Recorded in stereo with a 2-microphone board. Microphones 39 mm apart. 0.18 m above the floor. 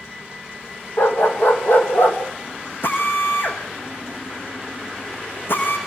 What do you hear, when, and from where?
1.0 s a dog barking: 60° left (ahead or behind), 4.5 m; by 2.2 s 50° left (ahead or behind), 3.5 m
2.8 s a drill: 60° left (ahead or behind), 6 m